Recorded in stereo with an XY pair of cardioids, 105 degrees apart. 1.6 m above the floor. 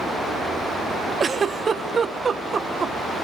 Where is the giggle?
35° right, 1.1 m.